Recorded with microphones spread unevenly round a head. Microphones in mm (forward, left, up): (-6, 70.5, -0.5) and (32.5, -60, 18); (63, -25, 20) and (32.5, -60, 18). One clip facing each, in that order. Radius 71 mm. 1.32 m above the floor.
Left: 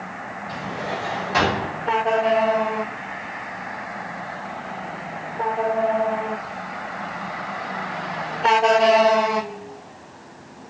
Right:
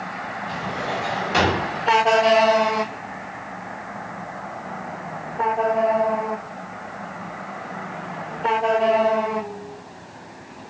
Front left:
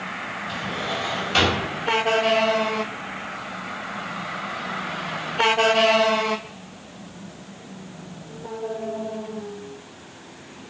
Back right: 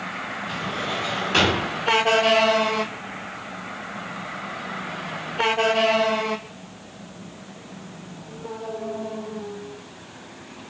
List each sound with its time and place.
0.5 s a drawer: 135° right, 1.4 m